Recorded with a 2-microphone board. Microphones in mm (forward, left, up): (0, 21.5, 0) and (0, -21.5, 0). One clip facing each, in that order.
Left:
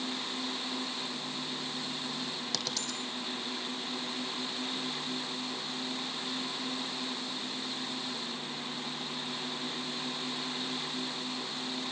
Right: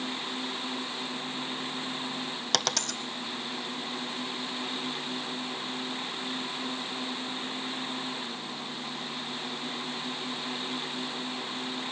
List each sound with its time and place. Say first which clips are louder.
2.5 s a dropped coin: right 6 dB; 70° right (ahead or behind), 0.8 m